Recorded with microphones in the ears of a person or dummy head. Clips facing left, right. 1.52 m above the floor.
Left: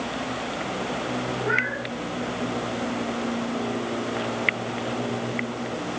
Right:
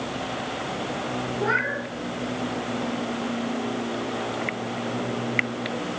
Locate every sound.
1.4 s a cat meowing: 75° right (ahead or behind), 7.5 m